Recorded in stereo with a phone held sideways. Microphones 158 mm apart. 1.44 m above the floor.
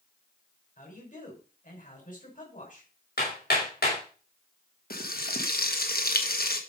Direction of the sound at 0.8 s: 55° left (ahead or behind).